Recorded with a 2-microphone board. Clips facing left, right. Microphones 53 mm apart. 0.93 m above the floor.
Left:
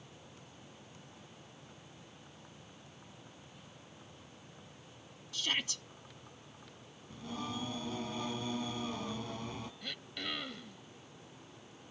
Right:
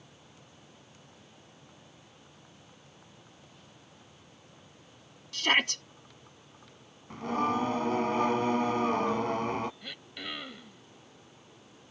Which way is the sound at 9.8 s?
10° right (ahead or behind).